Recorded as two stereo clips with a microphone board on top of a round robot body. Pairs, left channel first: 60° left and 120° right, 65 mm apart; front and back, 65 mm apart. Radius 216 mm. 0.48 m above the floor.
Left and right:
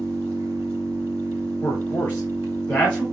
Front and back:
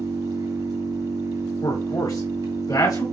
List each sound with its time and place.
0.0 s an engine running: 170° right, 3.5 m
1.6 s a man speaking: 5° right, 3 m